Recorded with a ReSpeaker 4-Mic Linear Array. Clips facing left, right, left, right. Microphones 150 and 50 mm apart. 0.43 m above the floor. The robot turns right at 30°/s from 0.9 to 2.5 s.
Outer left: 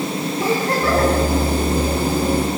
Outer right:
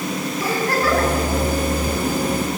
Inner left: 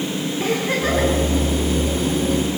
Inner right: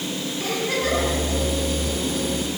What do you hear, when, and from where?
0.4 s a giggle: 20° left (ahead or behind), 5.5 m; by 1.1 s 30° left (ahead or behind), 5.5 m